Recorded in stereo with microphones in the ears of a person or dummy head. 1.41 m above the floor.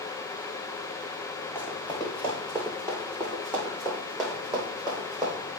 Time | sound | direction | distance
1.6 | running footsteps | 15° left (ahead or behind) | 5 m